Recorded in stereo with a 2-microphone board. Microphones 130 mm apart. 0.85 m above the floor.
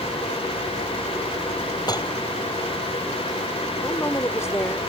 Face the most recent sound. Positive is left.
turn(degrees=25)  # may be behind; listen again after turning